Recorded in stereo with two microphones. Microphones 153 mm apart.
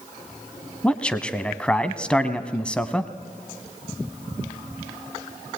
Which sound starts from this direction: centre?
A man speaking, at 0.8 s.